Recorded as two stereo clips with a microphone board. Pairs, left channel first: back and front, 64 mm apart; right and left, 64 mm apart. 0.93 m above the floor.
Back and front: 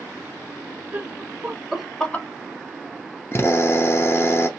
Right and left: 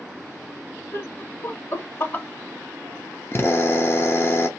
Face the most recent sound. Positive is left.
turn(degrees=-135)